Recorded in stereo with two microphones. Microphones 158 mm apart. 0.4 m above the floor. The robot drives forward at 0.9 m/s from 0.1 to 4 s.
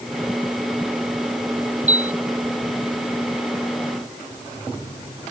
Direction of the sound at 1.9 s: 50° right (ahead or behind).